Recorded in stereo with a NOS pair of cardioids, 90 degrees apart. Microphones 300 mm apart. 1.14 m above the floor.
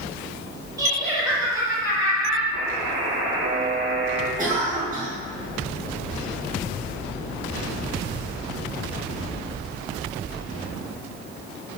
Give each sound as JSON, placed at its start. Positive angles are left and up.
{"t": 0.8, "sound": "laughter", "azimuth_deg": -10, "distance_m": 1.5}
{"t": 2.5, "sound": "a buzzer", "azimuth_deg": -50, "distance_m": 1.0}
{"t": 4.4, "sound": "a cough", "azimuth_deg": -30, "distance_m": 1.5}